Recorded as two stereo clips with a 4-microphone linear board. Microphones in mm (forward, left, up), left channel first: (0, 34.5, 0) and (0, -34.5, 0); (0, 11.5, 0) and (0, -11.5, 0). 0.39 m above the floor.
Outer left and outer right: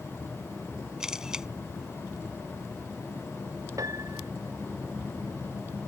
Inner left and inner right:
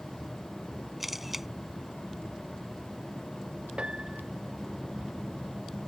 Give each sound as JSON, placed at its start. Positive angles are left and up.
{"t": 1.0, "sound": "a camera shutter", "side_deg": -10}
{"t": 3.8, "sound": "a piano", "side_deg": -55}